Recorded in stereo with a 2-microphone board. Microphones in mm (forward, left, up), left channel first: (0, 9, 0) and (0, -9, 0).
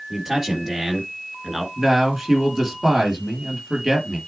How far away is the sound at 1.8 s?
About 5 m.